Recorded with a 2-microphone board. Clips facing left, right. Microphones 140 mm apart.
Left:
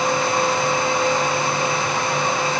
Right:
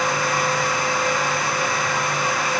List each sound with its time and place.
Only background noise.